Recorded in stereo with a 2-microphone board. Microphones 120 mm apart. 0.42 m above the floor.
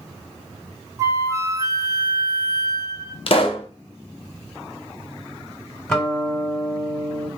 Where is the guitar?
5° left (ahead or behind), 1.5 m.